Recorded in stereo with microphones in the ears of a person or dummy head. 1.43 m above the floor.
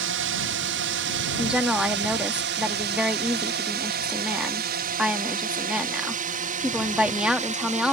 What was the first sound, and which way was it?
A drone, 60° right (ahead or behind).